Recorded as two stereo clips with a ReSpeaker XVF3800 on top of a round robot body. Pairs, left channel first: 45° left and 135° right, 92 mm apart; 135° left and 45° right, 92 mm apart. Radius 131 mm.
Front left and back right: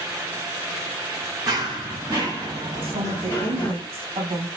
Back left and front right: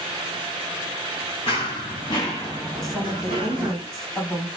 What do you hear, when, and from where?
1.5 s running footsteps: 175° left, 1.9 m; by 3.8 s 20° right, 1.6 m
2.8 s a woman speaking: 140° right, 3 m